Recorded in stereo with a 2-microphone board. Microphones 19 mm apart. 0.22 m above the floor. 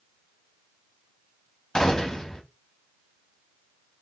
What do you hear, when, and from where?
1.8 s a gunshot: 30° left (ahead or behind), 1.0 m